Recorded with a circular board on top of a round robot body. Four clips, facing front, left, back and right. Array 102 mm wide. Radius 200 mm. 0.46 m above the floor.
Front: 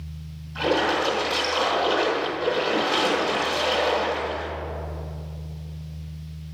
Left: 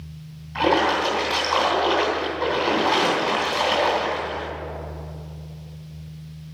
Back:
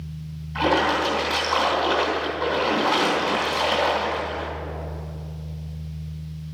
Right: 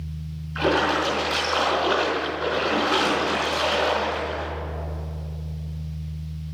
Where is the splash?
110° left, 3 m.